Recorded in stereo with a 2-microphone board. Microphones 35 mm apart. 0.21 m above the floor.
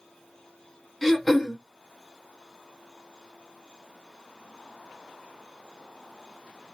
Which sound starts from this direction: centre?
Throat clearing, at 1.0 s.